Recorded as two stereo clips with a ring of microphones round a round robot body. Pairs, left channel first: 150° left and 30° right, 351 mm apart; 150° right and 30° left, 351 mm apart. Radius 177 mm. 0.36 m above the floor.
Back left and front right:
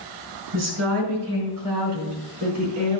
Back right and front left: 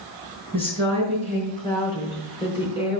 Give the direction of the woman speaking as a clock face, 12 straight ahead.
3 o'clock.